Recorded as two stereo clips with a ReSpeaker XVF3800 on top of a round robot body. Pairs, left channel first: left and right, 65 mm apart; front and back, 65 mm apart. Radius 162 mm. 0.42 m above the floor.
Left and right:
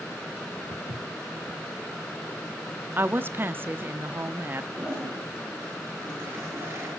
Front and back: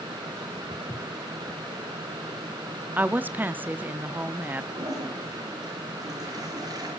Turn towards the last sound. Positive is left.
turn(degrees=-150)